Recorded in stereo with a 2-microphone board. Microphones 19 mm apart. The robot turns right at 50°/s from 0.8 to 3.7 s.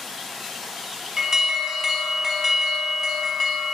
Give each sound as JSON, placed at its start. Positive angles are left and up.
{"t": 1.2, "sound": "an alarm", "azimuth_deg": -75, "distance_m": 1.4}